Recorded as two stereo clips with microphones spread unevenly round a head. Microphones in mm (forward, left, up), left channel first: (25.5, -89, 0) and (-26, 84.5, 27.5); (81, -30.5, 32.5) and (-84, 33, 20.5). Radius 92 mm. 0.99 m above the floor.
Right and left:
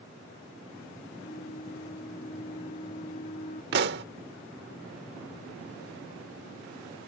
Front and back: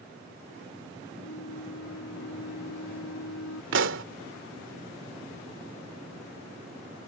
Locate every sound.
1.2 s a flute: 20° right
3.7 s a pop: 140° left